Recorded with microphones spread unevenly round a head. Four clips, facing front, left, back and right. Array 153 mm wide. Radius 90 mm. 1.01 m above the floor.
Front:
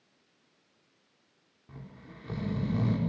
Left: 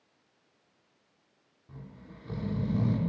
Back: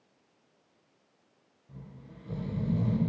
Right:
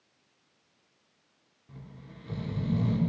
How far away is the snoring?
About 3 m.